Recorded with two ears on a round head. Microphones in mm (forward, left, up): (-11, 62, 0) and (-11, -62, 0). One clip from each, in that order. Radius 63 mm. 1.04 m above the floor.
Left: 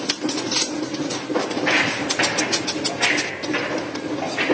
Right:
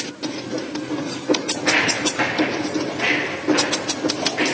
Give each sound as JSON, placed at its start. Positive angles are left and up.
{"t": 1.5, "sound": "footsteps", "side_deg": 0, "distance_m": 2.5}